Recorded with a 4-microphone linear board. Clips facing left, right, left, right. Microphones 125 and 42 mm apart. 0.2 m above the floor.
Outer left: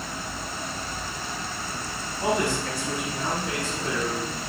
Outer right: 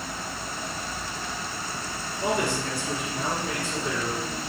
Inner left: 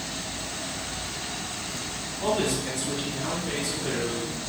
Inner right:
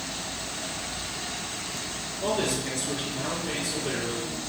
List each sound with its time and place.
2.2 s a man speaking: 30° left (ahead or behind), 1.3 m; by 4.3 s 10° right (ahead or behind), 1.9 m